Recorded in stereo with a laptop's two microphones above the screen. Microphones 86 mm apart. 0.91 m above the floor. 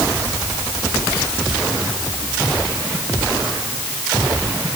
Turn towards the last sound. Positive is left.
No sound to turn to.